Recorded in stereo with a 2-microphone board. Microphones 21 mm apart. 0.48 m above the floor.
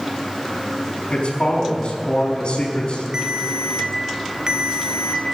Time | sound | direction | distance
1.1 | a man speaking | 45° left (ahead or behind) | 4 m
3.1 | a ringtone | 40° right (ahead or behind) | 1.1 m